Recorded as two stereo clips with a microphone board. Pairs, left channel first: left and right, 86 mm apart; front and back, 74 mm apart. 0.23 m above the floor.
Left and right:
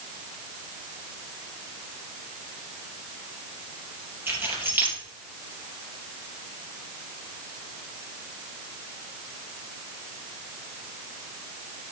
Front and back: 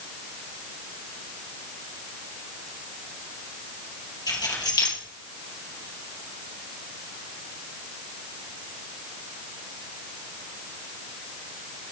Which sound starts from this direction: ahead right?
Keys jangling, at 4.3 s.